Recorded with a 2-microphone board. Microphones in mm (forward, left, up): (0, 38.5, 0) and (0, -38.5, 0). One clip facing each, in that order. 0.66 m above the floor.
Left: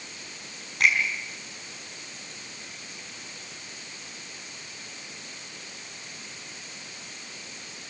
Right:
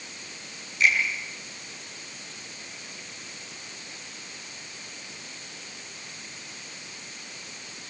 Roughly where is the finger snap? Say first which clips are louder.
Even; left.